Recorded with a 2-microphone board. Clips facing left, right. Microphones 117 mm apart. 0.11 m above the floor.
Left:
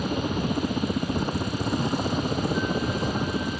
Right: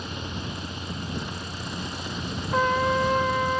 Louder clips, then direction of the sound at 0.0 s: Left 8 dB; 45° left (ahead or behind).